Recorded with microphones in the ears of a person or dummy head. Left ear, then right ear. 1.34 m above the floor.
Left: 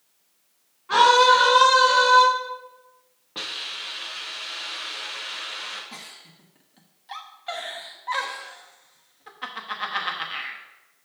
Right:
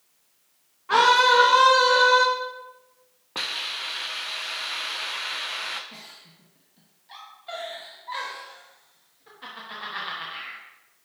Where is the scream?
20° right (ahead or behind), 1.5 m; by 2.2 s 15° right (ahead or behind), 2.5 m.